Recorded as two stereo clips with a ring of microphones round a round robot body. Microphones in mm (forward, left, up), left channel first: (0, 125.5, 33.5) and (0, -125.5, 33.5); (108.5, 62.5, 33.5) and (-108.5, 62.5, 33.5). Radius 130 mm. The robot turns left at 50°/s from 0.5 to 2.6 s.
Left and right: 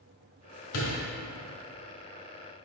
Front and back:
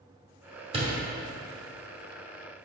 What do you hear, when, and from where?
0.7 s a door slam: 120° left, 2.0 m; by 1.0 s 105° left, 2.0 m